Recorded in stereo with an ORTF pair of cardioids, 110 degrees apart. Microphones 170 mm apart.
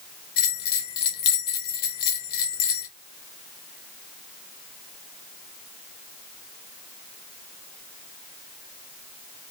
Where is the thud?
No thud in this recording.